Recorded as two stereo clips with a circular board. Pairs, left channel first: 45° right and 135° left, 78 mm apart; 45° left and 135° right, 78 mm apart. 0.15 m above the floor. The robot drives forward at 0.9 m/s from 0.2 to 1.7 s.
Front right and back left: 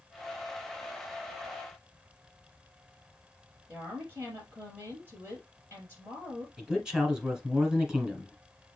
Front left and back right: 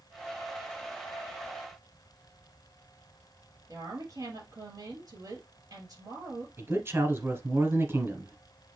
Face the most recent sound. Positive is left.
turn(degrees=-150)